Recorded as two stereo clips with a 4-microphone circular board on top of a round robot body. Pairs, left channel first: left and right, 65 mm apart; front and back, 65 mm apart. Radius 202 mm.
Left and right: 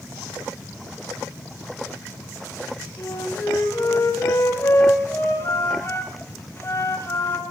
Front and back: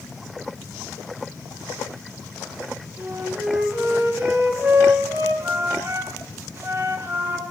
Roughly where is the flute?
Behind left.